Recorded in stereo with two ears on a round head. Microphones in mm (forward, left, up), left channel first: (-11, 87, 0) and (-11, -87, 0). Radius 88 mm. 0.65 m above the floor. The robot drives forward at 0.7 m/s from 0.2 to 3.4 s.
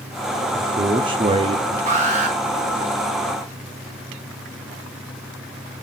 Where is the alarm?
40° right (ahead or behind), 3 m.